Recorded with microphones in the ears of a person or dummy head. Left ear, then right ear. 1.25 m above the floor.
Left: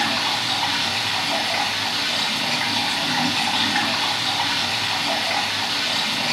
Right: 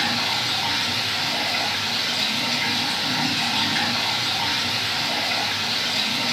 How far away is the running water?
About 2.5 m.